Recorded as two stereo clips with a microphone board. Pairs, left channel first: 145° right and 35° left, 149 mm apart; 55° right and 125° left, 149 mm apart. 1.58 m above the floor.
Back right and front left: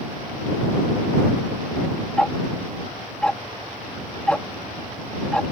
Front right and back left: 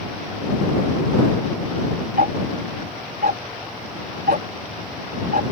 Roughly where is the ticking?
Behind left.